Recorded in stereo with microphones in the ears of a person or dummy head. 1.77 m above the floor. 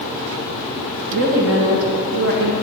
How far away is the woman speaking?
About 1.6 m.